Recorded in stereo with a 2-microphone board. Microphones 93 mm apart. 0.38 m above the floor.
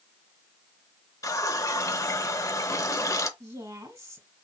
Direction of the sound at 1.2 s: 35° left (ahead or behind).